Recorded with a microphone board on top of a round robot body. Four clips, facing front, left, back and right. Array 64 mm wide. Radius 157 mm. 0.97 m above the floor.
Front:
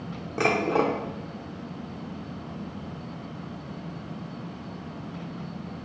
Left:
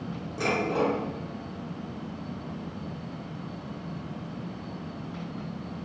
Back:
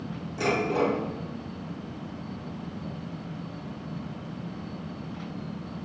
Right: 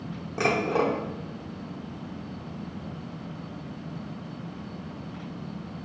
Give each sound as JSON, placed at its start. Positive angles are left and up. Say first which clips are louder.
{"t": 0.4, "sound": "dishes clattering", "louder": "right 2 dB, front 2 dB", "azimuth_deg": -30, "distance_m": 0.7}